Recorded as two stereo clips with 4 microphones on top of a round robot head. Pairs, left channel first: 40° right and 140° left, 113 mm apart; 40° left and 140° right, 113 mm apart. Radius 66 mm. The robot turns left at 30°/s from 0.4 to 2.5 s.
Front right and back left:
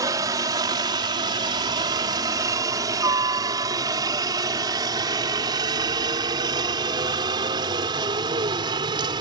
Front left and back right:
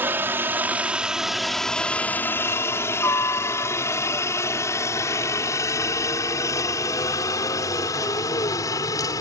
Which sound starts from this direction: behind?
A helicopter, at 0.0 s.